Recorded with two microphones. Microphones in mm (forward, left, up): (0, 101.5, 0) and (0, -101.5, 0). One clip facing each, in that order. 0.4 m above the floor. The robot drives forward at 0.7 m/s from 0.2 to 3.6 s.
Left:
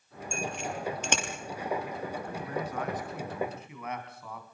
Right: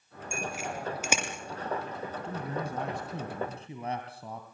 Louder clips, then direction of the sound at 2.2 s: Even; 25° right (ahead or behind).